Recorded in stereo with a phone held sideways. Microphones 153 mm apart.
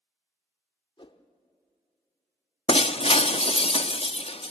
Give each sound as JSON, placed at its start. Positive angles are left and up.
{"t": 1.0, "sound": "a whoosh", "side_deg": 35, "distance_m": 0.8}
{"t": 2.7, "sound": "breaking glass", "side_deg": 40, "distance_m": 0.5}